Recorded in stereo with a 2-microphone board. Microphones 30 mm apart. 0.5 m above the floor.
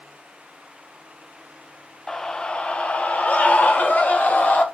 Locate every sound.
2.1 s a scream: 15° left (ahead or behind), 0.7 m; by 4.6 s 70° left (ahead or behind), 1.9 m